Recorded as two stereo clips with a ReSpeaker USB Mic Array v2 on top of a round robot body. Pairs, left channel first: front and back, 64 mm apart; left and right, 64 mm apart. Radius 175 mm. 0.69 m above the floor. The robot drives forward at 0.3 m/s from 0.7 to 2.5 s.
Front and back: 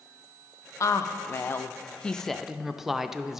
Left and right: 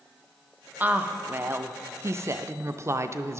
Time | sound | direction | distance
0.8 | a woman speaking | 30° right | 0.7 m